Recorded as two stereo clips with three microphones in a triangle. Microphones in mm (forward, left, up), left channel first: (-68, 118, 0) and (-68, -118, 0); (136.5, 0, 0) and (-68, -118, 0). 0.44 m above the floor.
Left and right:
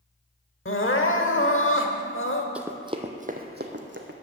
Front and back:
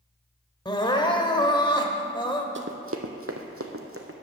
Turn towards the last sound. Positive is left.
turn(degrees=-125)